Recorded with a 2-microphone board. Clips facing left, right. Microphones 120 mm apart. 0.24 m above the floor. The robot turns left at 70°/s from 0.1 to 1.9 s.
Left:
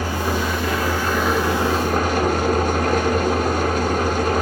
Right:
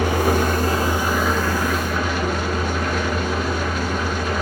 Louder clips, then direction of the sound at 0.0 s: Right 4 dB; 100° right.